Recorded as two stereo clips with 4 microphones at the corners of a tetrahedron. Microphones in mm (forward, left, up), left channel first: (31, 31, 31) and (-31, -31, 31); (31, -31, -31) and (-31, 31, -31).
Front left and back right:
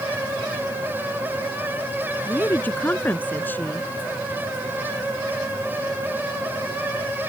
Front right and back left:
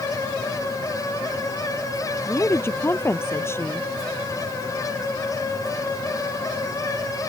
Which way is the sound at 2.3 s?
10° right.